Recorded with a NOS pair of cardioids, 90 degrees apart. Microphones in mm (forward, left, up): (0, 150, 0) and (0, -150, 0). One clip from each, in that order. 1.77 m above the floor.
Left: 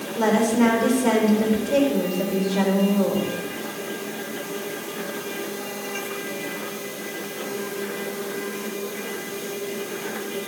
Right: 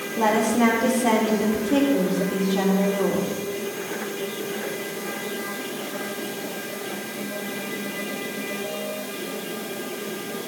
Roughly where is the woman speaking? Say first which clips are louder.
Even; ahead.